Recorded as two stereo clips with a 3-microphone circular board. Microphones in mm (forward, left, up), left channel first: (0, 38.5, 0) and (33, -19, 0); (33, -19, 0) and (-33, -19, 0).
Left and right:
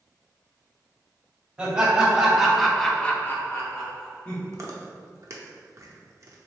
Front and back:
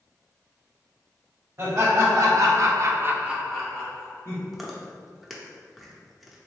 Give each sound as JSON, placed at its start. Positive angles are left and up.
{"t": 1.6, "sound": "laughter", "azimuth_deg": -140, "distance_m": 1.7}
{"t": 4.5, "sound": "chewing", "azimuth_deg": -95, "distance_m": 0.6}